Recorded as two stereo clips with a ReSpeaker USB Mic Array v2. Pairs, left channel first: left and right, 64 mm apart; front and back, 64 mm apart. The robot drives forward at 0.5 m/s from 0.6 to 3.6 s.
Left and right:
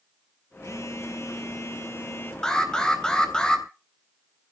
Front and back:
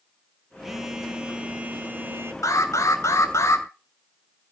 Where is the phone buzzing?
95° left, 1.5 m; by 2.3 s 130° left, 1.7 m.